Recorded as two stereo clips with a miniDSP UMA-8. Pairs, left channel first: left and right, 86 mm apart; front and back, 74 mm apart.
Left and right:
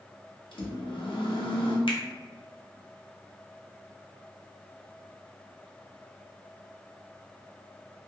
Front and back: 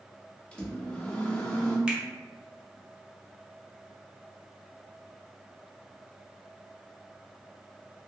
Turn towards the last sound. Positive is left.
turn(degrees=100)